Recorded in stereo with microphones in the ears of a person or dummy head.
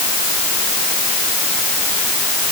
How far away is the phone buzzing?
No phone buzzing in this recording.